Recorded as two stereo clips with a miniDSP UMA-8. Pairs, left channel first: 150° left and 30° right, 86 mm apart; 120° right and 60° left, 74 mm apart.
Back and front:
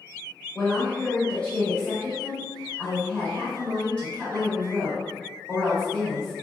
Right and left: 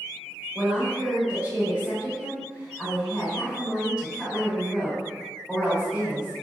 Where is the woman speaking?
100° left, 1.1 m.